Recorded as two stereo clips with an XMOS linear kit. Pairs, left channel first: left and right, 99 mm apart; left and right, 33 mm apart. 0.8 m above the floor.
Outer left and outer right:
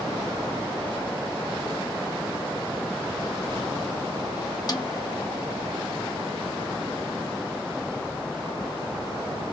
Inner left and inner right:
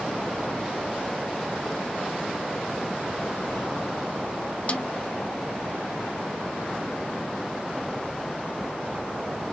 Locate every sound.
4.7 s a snare drum: 40° left (ahead or behind), 0.6 m